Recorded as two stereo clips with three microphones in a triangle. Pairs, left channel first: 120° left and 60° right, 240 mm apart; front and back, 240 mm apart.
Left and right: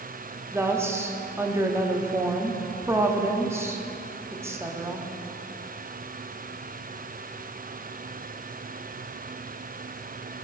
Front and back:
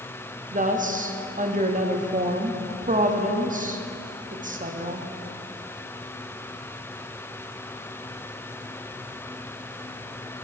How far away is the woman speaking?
About 0.7 m.